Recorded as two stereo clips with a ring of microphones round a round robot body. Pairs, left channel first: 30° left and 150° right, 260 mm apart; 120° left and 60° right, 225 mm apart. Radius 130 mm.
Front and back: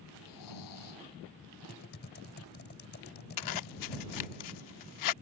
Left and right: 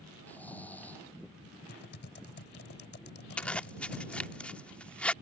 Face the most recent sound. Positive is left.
turn(degrees=35)